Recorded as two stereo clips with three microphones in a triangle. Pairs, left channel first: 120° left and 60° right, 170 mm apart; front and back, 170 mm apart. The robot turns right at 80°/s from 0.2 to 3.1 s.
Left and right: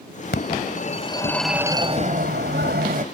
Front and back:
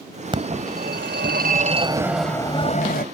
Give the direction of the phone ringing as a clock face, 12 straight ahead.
8 o'clock.